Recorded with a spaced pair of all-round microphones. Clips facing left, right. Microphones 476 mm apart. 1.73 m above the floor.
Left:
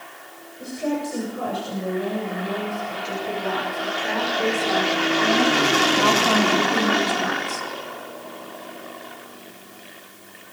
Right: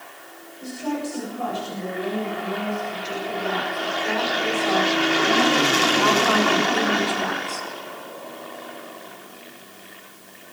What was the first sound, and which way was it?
A woman speaking, 80° left.